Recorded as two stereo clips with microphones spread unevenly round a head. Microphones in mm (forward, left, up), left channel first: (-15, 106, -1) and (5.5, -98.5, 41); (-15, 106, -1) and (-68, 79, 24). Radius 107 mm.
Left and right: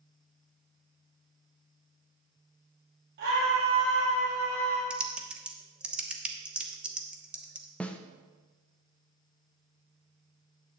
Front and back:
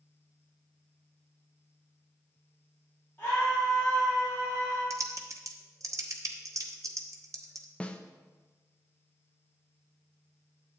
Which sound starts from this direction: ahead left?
A snare drum, at 7.8 s.